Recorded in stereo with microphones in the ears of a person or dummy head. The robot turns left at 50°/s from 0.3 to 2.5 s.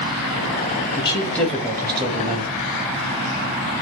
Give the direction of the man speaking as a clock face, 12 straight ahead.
11 o'clock.